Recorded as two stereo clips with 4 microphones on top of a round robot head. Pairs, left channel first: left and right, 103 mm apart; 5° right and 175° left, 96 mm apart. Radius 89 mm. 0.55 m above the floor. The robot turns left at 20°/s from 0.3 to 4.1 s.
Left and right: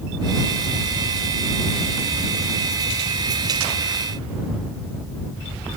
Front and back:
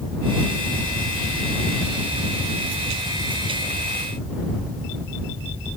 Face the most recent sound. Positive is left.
No sound to turn to.